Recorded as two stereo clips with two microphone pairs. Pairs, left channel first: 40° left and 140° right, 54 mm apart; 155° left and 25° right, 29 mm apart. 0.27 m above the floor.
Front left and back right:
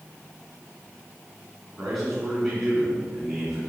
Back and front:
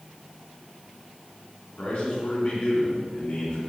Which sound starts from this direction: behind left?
A man speaking, at 1.8 s.